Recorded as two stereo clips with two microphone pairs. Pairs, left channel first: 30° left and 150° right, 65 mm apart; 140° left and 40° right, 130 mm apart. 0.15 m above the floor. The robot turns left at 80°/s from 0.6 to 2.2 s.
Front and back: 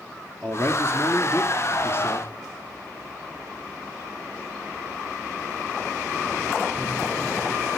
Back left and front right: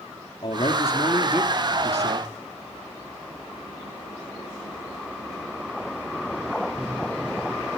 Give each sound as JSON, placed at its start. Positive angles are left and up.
{"t": 0.4, "sound": "a man speaking", "azimuth_deg": 95, "distance_m": 2.5}